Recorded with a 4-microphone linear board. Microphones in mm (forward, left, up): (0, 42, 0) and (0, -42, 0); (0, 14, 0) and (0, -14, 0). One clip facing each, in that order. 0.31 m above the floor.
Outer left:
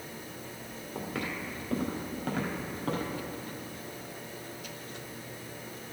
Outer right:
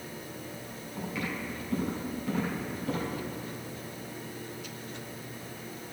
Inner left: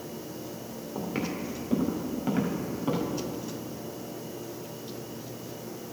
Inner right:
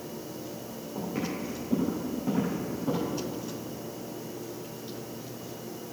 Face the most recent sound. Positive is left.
turn(degrees=65)  # may be behind; listen again after turning